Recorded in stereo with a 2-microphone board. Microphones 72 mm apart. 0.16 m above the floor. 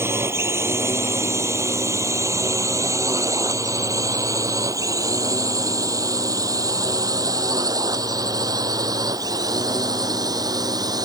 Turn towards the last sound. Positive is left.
turn(degrees=-60)  # may be behind; listen again after turning